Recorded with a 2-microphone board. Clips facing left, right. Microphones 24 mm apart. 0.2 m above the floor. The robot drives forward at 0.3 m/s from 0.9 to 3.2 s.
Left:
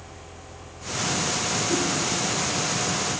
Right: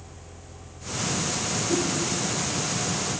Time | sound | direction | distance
1.7 | a whoosh | 15° right (ahead or behind) | 1.7 m